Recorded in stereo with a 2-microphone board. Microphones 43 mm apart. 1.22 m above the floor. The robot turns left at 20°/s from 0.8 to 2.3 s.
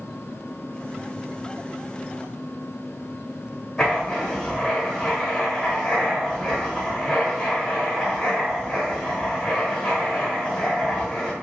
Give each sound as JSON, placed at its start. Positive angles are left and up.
{"t": 3.8, "sound": "writing", "side_deg": 10, "distance_m": 1.0}